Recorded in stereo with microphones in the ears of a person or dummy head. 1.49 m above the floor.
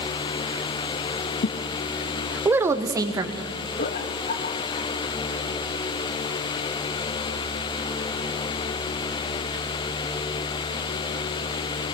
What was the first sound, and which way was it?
A woman speaking, 65° left (ahead or behind).